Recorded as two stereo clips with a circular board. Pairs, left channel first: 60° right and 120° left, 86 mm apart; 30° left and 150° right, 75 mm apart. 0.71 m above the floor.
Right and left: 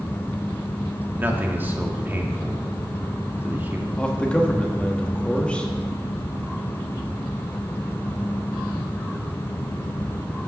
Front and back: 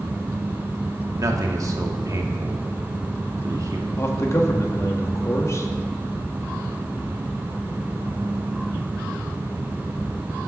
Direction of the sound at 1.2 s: 175° right.